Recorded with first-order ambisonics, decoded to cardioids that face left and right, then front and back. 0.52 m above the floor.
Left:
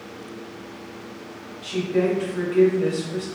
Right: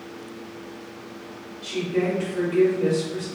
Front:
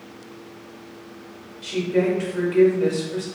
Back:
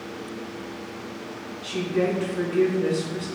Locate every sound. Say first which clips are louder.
1.6 s a woman speaking: left 2 dB, front 3 dB; 5° left, 1.4 m